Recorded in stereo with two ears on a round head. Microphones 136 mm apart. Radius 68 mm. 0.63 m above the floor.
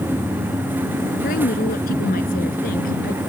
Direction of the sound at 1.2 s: 60° left (ahead or behind).